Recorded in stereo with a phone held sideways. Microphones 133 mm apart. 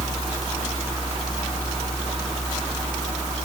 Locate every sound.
Only background noise.